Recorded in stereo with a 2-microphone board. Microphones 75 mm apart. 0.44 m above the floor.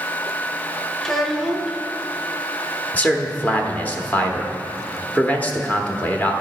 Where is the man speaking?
20° left (ahead or behind), 1.0 m.